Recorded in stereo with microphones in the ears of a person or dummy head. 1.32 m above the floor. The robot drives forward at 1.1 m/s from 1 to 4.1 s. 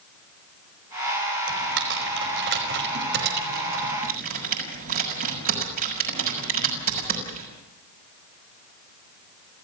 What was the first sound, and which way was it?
Typing on a keyboard, 65° right (ahead or behind).